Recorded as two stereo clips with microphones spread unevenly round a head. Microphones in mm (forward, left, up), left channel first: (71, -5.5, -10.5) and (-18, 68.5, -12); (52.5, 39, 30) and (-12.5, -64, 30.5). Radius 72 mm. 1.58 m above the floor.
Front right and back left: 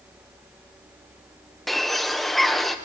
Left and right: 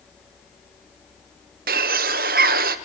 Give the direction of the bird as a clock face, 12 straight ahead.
4 o'clock.